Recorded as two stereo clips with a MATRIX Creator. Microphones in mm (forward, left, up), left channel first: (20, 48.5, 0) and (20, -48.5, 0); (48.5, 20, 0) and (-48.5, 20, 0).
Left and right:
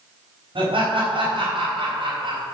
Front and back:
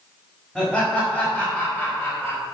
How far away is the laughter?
About 4.5 m.